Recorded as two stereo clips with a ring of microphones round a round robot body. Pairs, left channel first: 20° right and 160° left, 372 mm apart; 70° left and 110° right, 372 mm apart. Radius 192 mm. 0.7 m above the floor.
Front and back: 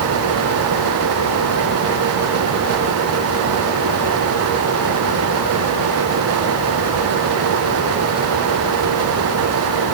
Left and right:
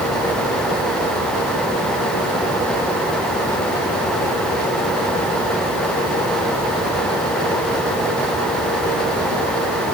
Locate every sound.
Only background noise.